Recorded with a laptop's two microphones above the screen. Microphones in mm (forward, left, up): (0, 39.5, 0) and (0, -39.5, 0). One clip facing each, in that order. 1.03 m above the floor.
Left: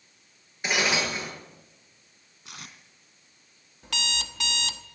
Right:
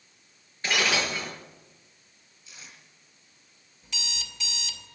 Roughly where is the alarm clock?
Left.